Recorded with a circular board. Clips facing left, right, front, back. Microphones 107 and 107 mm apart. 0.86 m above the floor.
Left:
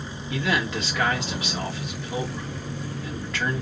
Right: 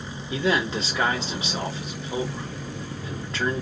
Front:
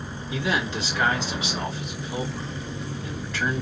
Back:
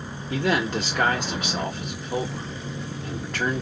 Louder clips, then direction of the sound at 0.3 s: Right 2 dB, back 3 dB; 150° right.